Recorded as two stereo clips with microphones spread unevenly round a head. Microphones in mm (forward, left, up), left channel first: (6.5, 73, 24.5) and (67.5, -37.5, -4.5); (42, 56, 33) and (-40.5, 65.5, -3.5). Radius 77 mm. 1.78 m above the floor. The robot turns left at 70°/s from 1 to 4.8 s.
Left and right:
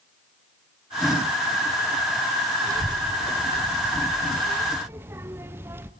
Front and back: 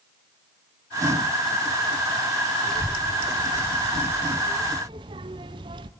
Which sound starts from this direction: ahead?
A child speaking, at 2.7 s.